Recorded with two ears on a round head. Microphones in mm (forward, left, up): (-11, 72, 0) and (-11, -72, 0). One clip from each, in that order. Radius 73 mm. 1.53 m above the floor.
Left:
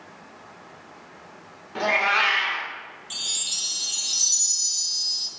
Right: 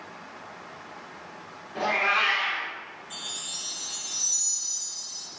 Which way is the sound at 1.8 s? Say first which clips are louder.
Left 3 dB; 50° left (ahead or behind).